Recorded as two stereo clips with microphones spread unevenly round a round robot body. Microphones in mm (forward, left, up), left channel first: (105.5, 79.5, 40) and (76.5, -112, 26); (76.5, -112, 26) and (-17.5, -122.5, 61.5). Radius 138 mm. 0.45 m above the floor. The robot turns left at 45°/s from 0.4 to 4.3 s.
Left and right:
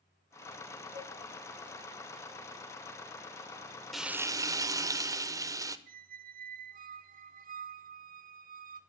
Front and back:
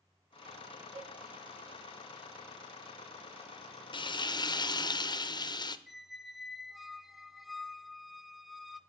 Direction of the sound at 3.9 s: 10° right.